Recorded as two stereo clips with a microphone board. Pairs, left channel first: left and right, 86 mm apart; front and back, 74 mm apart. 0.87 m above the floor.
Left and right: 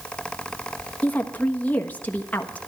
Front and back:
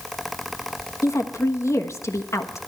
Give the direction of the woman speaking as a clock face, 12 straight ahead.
11 o'clock.